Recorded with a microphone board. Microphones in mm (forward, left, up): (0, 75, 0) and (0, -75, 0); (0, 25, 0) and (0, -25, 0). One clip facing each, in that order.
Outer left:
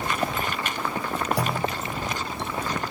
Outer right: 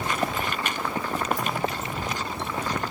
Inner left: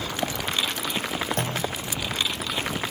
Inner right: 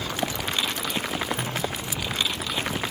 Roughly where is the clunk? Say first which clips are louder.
Outer left 2 dB, inner left 1 dB; left.